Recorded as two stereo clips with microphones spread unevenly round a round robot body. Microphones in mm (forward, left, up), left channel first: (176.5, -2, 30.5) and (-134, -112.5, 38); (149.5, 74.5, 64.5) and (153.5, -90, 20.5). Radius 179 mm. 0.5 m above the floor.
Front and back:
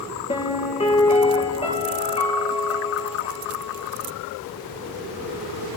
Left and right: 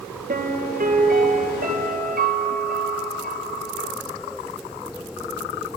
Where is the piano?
55° right, 2.5 m.